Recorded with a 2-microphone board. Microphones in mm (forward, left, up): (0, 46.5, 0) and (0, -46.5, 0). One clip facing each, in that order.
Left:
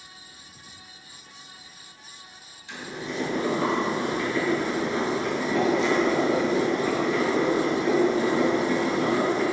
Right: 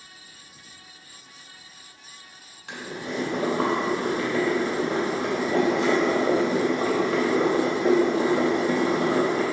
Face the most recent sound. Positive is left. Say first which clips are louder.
# right 1 dB
turn(degrees=-75)  # may be behind; listen again after turning